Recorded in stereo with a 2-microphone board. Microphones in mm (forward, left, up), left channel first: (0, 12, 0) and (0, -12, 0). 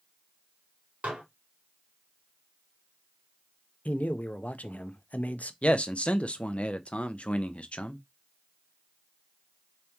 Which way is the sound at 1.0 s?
80° right.